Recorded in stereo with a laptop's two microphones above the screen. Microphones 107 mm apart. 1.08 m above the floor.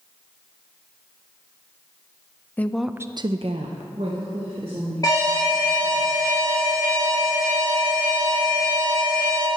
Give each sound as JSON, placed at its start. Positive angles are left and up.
{"t": 2.6, "sound": "a woman speaking", "side_deg": 15, "distance_m": 0.6}
{"t": 5.0, "sound": "an alarm", "side_deg": 35, "distance_m": 3.0}